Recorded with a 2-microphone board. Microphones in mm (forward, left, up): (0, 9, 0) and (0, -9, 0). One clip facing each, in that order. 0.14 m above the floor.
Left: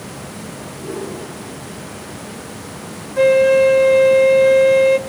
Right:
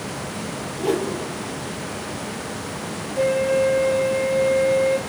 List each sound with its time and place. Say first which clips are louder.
0.8 s a whoosh: right 5 dB; 70° right (ahead or behind), 3.5 m
3.2 s a flute: left 8 dB; 45° left (ahead or behind), 0.6 m